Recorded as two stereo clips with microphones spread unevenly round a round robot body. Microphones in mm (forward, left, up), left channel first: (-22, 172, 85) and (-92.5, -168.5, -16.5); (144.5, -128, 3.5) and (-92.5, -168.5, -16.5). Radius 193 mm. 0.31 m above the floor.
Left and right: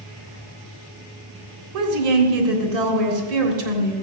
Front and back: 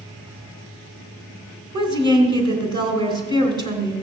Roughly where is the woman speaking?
Right.